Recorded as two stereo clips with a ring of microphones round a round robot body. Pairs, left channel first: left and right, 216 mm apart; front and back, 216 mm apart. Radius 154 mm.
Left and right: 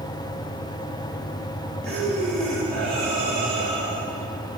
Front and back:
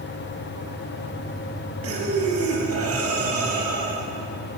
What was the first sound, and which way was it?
Breathing, 175° left.